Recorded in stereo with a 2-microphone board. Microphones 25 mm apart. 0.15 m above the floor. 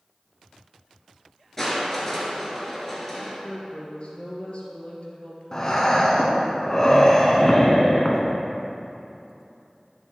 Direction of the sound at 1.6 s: 15° left (ahead or behind).